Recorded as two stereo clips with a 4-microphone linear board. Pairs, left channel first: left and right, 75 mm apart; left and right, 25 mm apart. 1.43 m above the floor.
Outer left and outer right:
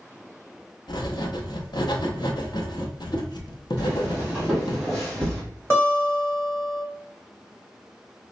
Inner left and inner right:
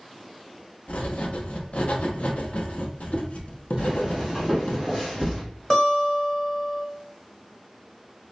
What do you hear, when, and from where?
0.9 s writing: 70° left (ahead or behind), 0.6 m
3.8 s footsteps: 30° right (ahead or behind), 1.8 m; by 5.4 s 10° left (ahead or behind), 1.6 m
5.7 s a guitar: 30° left (ahead or behind), 1.4 m